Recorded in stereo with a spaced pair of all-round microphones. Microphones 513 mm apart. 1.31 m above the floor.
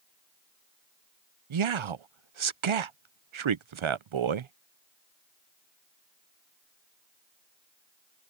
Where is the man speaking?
65° right (ahead or behind).